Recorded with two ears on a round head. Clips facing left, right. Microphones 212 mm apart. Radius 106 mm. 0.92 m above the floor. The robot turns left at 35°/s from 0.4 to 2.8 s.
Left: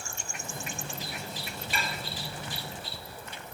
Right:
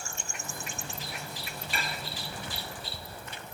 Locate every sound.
1.7 s dishes clattering: 85° left, 3.5 m; by 2.0 s 75° left (ahead or behind), 3.5 m